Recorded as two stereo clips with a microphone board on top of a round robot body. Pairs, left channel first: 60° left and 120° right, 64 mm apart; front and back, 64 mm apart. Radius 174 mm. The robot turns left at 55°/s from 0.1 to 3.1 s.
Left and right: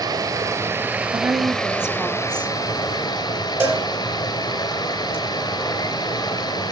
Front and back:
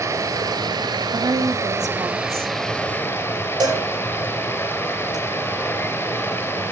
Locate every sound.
0.0 s running water: 135° right, 2.5 m; by 6.7 s 60° left, 2.5 m
1.1 s a woman speaking: 160° right, 1.7 m; by 2.5 s 125° left, 1.7 m
3.6 s a cowbell: 175° right, 4 m